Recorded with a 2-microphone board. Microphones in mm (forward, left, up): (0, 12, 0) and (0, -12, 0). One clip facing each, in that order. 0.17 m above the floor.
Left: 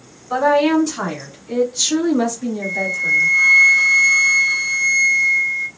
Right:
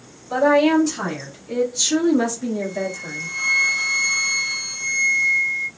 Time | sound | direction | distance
0.3 | a woman speaking | 35° left (ahead or behind) | 1.6 m
2.6 | a flute | 15° left (ahead or behind) | 0.7 m